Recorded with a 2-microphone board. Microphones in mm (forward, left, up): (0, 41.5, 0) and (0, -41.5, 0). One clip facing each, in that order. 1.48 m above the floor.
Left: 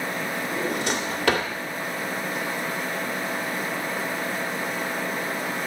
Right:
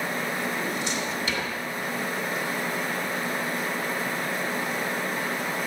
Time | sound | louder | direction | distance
0.5 | a drawer | left 3 dB | 70° left (ahead or behind) | 2.5 m